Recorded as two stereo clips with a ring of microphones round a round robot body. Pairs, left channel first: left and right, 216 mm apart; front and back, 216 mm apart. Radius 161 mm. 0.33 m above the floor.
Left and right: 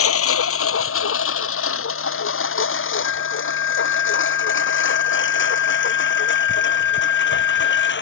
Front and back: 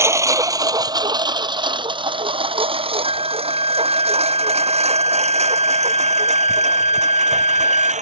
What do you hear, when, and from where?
0.0 s a lawn mower: 100° left; by 8.0 s 125° left
3.0 s a flute: 60° left